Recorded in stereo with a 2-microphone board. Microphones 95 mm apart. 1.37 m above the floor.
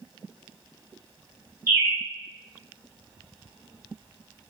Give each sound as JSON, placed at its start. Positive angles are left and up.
{"t": 1.7, "sound": "a bird", "side_deg": -30, "distance_m": 1.1}